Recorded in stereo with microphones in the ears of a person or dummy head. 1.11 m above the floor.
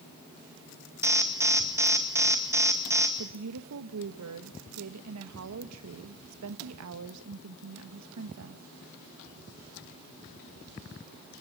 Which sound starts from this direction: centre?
An alarm, at 1.0 s.